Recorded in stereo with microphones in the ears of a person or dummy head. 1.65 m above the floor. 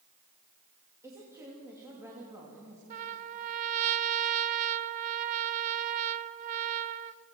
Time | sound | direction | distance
1.0 | a woman speaking | 20° right (ahead or behind) | 3 m
2.9 | a trumpet | 40° right (ahead or behind) | 0.6 m